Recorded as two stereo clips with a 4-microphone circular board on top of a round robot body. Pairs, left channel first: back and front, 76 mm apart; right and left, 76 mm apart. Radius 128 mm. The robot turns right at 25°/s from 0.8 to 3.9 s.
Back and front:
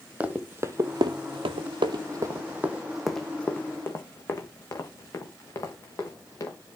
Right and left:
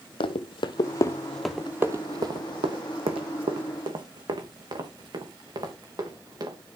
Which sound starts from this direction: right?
Running footsteps, at 0.2 s.